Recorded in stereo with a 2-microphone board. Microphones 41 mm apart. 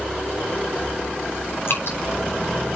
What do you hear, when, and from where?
1.7 s dripping: 65° left (ahead or behind), 7 m